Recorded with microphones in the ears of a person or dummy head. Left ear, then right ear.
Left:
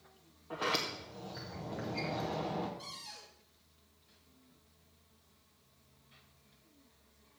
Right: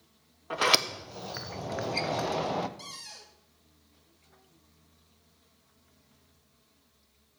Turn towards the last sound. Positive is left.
turn(degrees=-70)  # may be behind; listen again after turning